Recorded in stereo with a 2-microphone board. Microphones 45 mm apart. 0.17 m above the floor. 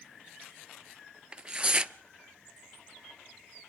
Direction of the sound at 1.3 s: 20° right (ahead or behind).